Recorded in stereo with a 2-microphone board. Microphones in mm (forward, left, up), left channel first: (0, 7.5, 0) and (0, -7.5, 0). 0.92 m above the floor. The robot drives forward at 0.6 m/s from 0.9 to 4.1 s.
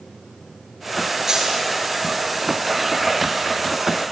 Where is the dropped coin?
25° right (ahead or behind), 7 m.